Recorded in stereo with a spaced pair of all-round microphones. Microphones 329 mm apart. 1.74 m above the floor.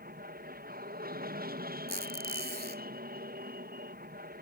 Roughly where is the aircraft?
Right.